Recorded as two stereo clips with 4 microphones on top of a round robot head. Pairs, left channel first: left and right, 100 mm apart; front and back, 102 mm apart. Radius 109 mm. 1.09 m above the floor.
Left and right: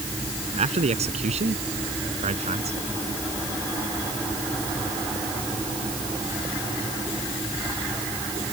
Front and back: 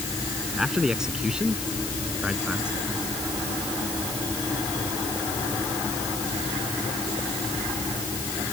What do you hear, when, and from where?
0.6 s a man speaking: 95° right; by 2.8 s 100° right